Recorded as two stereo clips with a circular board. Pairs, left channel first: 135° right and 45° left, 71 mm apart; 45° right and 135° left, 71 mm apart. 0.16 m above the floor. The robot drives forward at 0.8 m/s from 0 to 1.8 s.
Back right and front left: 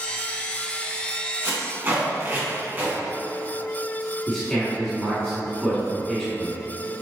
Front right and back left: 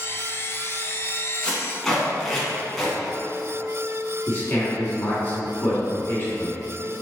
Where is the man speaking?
60° right, 1.8 m.